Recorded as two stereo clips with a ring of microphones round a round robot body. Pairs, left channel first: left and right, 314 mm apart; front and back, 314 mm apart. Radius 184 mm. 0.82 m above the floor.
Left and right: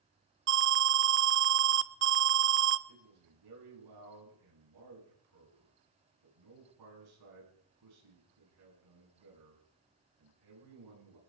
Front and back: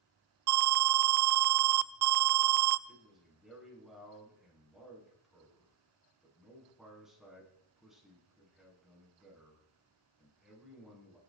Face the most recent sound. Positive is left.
turn(degrees=-90)